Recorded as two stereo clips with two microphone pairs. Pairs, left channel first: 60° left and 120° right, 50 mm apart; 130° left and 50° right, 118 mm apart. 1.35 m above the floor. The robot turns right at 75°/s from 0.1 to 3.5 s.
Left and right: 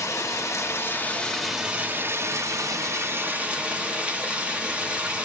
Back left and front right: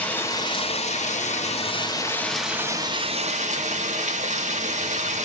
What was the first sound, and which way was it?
Running water, 55° left.